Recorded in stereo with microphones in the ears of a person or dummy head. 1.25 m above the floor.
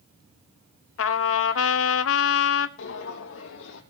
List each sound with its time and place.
1.0 s a trumpet: 80° left, 1.1 m
2.8 s footsteps: 70° left (ahead or behind), 3.5 m